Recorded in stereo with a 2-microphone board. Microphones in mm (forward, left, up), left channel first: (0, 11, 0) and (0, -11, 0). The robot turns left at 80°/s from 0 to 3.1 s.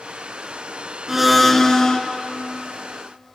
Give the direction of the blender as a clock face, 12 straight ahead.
5 o'clock.